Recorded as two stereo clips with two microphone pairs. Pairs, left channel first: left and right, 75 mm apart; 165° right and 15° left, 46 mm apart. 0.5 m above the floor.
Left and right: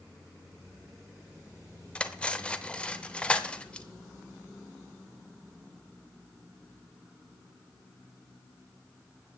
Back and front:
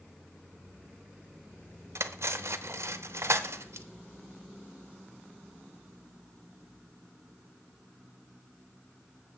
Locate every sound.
1.9 s cutlery clinking: 15° left, 0.8 m